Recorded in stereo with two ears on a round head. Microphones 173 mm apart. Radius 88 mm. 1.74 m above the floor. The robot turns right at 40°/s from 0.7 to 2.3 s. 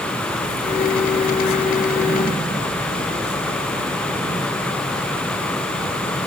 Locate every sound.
Only background noise.